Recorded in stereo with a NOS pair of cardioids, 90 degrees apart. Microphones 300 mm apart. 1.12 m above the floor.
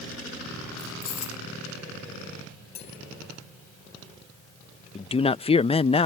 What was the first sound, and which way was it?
Keys jangling, 50° left.